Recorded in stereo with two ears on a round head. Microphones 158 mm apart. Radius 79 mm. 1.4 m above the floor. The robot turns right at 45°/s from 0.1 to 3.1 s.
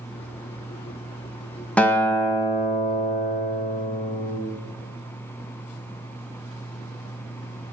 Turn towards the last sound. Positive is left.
turn(degrees=70)